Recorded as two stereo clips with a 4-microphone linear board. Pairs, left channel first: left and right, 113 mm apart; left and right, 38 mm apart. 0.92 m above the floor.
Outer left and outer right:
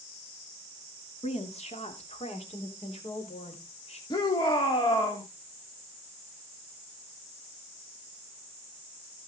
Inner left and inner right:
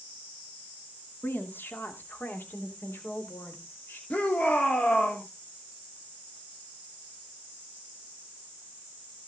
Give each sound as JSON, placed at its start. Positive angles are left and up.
{"t": 1.2, "sound": "a woman speaking", "side_deg": 75, "distance_m": 2.0}
{"t": 4.1, "sound": "a shout", "side_deg": 40, "distance_m": 2.5}